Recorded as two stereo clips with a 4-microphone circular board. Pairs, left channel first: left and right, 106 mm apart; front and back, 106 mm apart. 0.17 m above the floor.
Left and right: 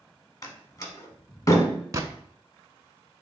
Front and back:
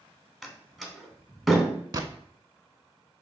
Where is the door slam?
95° left, 0.8 m.